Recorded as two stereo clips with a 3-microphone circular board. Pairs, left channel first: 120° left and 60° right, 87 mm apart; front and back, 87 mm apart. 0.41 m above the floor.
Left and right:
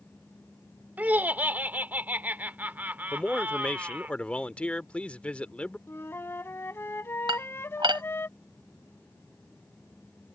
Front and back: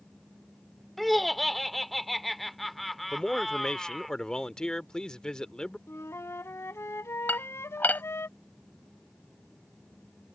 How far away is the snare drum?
I don't hear a snare drum.